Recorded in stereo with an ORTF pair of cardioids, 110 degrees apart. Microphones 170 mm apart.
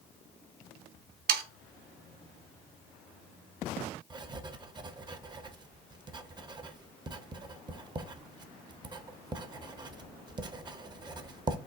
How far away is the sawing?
About 0.8 m.